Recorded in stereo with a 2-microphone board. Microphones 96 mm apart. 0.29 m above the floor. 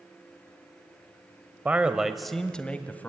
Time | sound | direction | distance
1.6 | a man speaking | 15° right (ahead or behind) | 1.0 m